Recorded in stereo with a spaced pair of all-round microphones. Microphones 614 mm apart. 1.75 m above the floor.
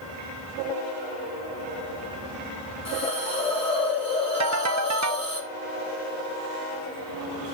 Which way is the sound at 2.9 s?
10° left (ahead or behind).